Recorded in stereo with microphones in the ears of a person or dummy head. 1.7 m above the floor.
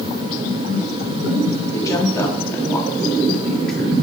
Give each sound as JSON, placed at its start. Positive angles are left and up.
{"t": 1.7, "sound": "a woman speaking", "side_deg": 20, "distance_m": 3.0}